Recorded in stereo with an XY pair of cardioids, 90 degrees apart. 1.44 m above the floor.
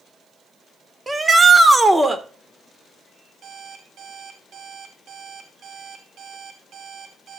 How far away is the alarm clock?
About 2.5 m.